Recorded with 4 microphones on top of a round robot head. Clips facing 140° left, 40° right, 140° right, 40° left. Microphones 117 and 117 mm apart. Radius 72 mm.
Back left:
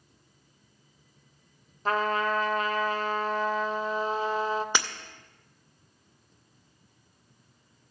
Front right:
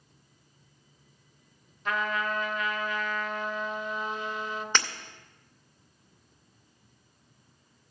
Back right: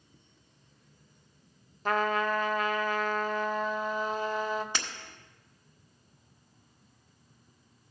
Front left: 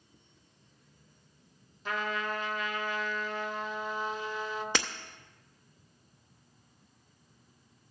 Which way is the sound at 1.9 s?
170° right.